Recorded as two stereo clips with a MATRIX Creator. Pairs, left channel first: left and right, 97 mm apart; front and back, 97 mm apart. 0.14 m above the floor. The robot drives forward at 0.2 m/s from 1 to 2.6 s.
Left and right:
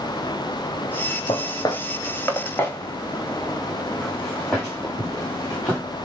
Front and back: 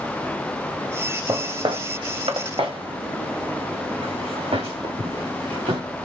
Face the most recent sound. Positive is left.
turn(degrees=-175)